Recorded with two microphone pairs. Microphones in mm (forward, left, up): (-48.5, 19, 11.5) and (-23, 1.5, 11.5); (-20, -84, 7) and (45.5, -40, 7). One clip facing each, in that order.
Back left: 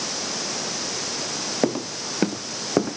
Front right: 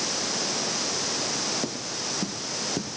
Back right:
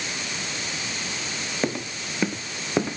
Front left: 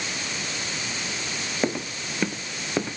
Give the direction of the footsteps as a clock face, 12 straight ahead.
8 o'clock.